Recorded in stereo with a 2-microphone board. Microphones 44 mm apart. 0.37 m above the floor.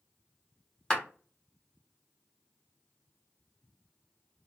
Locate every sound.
0.9 s a clap: 15° left (ahead or behind), 1.5 m